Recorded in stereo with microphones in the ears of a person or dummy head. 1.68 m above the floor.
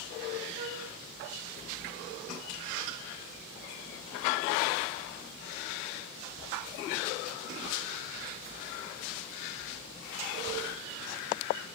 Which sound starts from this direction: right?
A flute, at 0.6 s.